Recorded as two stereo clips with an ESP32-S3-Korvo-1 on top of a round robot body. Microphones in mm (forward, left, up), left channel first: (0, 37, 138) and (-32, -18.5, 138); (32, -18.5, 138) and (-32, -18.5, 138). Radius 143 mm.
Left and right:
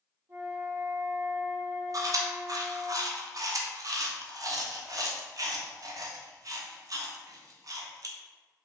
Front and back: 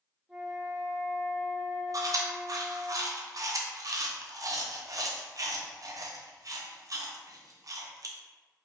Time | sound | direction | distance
0.3 | a flute | 105° right | 1.2 m
1.9 | chewing | 150° right | 0.7 m